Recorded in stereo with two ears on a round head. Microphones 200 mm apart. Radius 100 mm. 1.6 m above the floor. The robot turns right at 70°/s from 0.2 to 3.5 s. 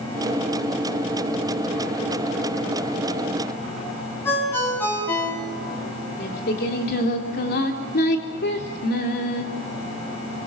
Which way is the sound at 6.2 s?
50° left (ahead or behind).